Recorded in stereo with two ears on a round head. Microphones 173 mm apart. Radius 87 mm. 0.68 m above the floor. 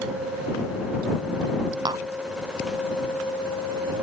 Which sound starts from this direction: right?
Tapping, at 1.9 s.